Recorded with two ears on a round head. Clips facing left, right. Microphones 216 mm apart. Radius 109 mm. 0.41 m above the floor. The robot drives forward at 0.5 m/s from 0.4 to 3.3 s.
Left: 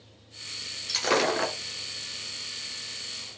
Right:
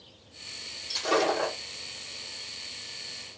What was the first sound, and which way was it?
Breaking glass, 85° left.